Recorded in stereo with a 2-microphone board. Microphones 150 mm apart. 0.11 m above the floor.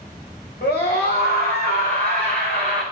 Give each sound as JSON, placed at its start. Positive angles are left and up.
{"t": 0.6, "sound": "a scream", "side_deg": 80, "distance_m": 7.0}